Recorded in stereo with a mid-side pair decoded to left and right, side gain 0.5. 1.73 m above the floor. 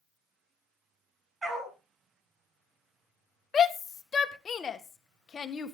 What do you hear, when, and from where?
1.4 s a dog barking: 35° right, 6 m
3.5 s a shout: 40° left, 1.9 m